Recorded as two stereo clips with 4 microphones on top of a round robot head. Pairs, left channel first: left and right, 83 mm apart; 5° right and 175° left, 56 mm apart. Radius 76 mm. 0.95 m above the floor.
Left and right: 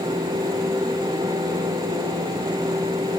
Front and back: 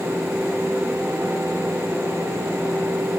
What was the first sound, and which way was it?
Only background noise.